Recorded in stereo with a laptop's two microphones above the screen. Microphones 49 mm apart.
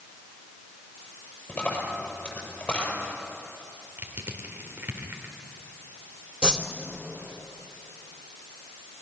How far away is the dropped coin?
About 7 m.